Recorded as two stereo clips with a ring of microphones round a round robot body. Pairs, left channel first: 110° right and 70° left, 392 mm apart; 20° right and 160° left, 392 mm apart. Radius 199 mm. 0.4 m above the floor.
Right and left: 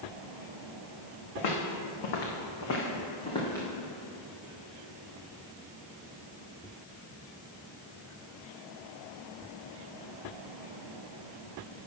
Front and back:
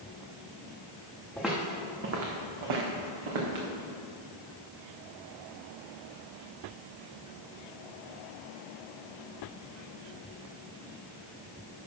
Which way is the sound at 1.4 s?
110° right.